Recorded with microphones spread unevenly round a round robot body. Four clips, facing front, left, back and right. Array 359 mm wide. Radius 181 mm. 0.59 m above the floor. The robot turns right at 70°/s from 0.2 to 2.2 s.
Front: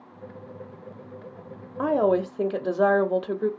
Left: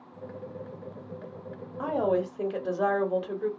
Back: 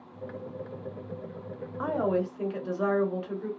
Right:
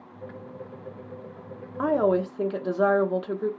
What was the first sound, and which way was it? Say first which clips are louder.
A woman speaking: right 4 dB, front 6 dB; 40° right.